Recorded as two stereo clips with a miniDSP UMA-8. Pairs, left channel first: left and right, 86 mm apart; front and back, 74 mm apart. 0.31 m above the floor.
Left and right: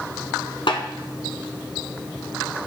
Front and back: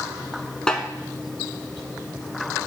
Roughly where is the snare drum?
Left.